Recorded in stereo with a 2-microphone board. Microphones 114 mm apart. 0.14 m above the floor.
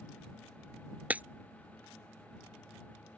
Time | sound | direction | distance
1.1 | breaking glass | 15° right (ahead or behind) | ?